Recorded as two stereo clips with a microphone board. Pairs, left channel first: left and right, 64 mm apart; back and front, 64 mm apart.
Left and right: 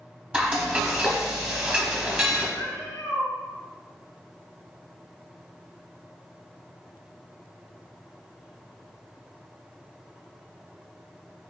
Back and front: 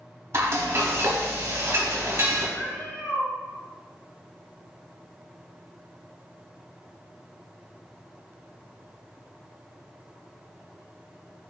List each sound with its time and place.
0.3 s frying: 25° right, 1.1 m
2.6 s a cat meowing: 120° left, 2 m